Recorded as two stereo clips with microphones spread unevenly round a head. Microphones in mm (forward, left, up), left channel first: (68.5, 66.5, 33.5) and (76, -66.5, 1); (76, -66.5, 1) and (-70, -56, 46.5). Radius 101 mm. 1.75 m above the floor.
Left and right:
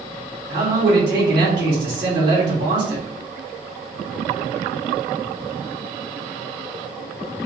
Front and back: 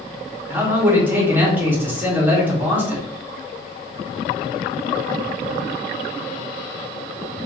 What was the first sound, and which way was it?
A man speaking, 110° right.